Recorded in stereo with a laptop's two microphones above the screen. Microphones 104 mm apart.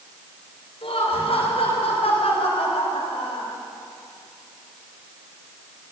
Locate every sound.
0.8 s laughter: 65° left (ahead or behind), 5.5 m; by 3.5 s 80° left, 4.5 m